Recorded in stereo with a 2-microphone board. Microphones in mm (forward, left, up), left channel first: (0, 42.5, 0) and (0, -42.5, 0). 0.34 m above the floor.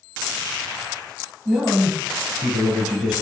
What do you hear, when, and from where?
1.4 s a man speaking: 10° right (ahead or behind), 1.2 m